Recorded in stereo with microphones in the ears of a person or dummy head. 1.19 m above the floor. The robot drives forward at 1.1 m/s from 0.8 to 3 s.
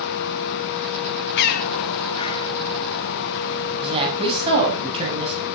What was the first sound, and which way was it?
A bird, 55° left (ahead or behind).